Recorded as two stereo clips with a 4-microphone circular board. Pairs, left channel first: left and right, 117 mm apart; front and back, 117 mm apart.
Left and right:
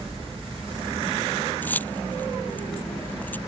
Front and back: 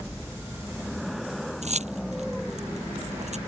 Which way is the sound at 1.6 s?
165° left.